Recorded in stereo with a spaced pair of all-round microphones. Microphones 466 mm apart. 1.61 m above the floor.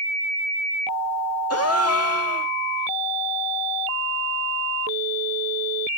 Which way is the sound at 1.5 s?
30° left (ahead or behind).